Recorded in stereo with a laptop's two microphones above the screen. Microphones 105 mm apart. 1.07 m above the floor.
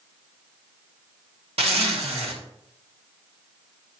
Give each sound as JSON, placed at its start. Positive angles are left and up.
{"t": 1.6, "sound": "a zipper", "side_deg": -70, "distance_m": 2.0}